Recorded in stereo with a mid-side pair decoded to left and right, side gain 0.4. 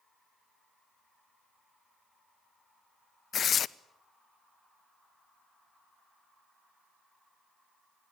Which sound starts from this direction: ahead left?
Tearing paper, at 3.3 s.